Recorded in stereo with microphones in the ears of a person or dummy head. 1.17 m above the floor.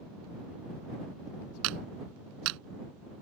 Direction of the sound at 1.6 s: 70° right (ahead or behind).